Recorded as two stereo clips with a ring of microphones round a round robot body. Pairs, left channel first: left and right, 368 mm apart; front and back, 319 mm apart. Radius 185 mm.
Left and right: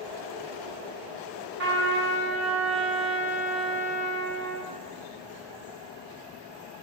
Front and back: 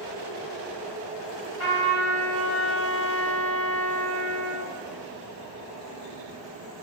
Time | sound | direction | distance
1.6 | a trumpet | 75° right | 1.7 m